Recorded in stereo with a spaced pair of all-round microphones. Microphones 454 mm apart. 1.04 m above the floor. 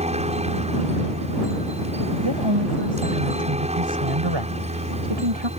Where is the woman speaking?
70° right (ahead or behind).